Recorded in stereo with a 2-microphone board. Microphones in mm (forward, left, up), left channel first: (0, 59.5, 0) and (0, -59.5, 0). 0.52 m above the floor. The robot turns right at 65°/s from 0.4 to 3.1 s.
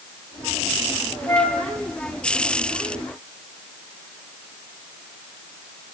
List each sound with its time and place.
1.3 s a flute: 10° left (ahead or behind), 2 m; by 1.6 s 30° left (ahead or behind), 2 m